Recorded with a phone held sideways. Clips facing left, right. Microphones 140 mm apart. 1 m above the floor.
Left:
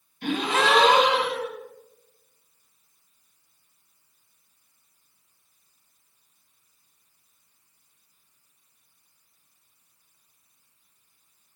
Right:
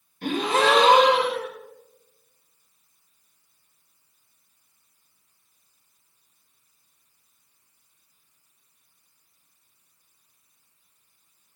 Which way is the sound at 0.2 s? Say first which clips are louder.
Right 2 dB; 45° right (ahead or behind).